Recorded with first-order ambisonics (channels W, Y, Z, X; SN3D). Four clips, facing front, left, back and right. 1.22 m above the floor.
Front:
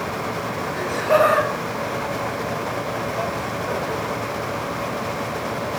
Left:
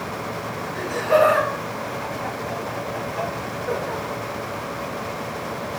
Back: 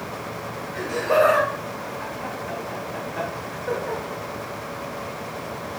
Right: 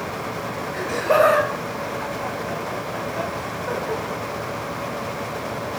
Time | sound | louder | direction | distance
0.7 | laughter | even, front 2 dB | 85° right | 1.4 m